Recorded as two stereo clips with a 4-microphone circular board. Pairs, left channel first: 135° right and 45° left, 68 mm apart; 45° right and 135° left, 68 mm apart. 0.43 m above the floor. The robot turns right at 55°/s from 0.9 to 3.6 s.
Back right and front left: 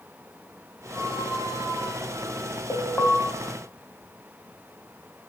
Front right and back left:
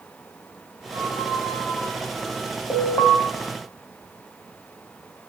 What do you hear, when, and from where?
0.9 s a squeak: 160° right, 8.5 m; by 2.5 s 75° right, 8.5 m
2.7 s an alarm: 90° right, 2 m; by 3.2 s 65° right, 2 m